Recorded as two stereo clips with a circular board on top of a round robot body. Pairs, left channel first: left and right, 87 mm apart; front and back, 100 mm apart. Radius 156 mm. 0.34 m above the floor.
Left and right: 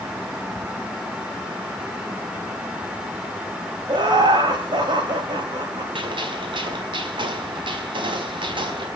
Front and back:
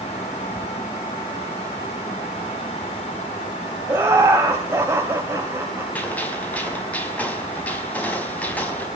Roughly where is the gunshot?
Right.